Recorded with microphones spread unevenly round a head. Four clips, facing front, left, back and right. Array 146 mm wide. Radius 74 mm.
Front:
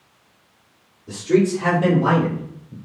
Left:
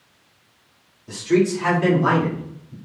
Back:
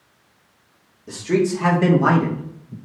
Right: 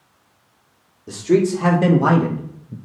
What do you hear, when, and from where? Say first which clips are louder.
1.1 s a man speaking: right 2 dB, front 2 dB; 100° right, 2.5 m; by 2.8 s 95° right, 1.0 m